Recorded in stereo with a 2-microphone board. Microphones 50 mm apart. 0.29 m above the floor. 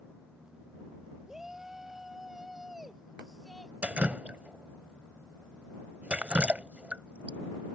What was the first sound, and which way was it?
A shout, 10° right (ahead or behind).